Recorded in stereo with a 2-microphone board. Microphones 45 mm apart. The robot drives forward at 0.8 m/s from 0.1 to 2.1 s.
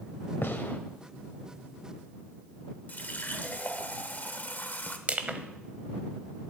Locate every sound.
0.4 s a gunshot: 60° left (ahead or behind), 1.0 m; by 0.8 s 50° left (ahead or behind), 1.1 m
2.9 s a running tap: 40° left (ahead or behind), 0.9 m
5.1 s crushing: 35° right (ahead or behind), 0.9 m